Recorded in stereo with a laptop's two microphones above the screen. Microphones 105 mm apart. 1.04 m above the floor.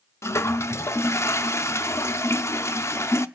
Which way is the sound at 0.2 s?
25° left (ahead or behind).